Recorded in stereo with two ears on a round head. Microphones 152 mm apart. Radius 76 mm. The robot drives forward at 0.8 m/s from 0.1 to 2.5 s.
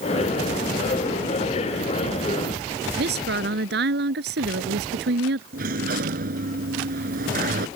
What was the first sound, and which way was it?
A woman speaking, 70° right (ahead or behind).